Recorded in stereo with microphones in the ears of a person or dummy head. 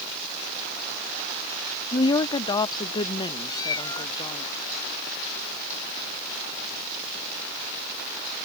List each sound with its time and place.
1.9 s a woman speaking: 20° left (ahead or behind); by 4.5 s 25° left (ahead or behind)
3.5 s a cat meowing: 25° left (ahead or behind)